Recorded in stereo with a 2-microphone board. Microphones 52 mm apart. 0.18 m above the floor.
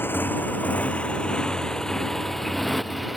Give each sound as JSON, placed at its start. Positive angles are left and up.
{"t": 0.0, "sound": "a motorcycle", "side_deg": 45}